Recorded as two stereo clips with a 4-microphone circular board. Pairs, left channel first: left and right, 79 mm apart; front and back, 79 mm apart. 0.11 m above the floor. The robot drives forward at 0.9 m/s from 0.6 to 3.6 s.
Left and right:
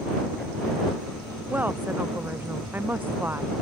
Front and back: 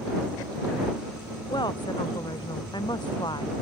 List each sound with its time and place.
1.5 s a woman speaking: 20° right; by 3.5 s 25° right